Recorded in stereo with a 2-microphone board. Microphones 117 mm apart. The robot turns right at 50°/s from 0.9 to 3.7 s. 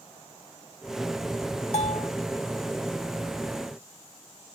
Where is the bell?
75° left (ahead or behind); by 2.1 s 65° left (ahead or behind).